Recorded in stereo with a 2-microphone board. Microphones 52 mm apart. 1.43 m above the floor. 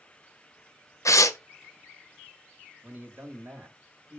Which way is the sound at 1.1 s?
85° left.